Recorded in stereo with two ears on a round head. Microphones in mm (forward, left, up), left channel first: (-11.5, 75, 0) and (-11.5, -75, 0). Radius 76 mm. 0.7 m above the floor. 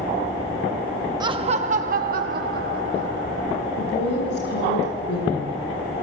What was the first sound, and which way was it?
Laughter, 25° right (ahead or behind).